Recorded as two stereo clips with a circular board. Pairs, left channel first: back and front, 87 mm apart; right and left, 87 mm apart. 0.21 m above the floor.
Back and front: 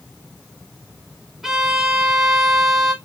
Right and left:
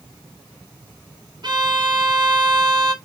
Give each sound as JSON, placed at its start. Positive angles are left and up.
{"t": 1.4, "sound": "a violin", "azimuth_deg": 85, "distance_m": 0.8}